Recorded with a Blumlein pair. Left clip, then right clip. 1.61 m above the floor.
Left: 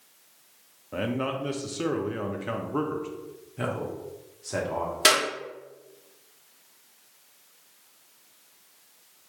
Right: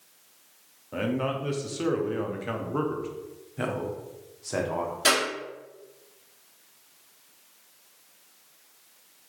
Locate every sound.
0.9 s a man speaking: 5° left, 0.5 m
3.6 s a man speaking: 5° right, 0.8 m
5.0 s a clap: 25° left, 1.7 m